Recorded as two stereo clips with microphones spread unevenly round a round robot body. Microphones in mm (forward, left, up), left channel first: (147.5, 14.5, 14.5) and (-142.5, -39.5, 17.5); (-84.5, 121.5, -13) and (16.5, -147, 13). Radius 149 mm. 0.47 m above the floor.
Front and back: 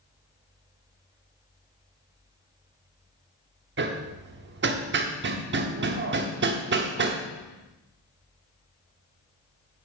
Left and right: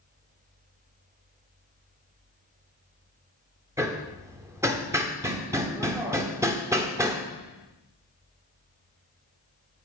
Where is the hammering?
150° right, 1.0 m.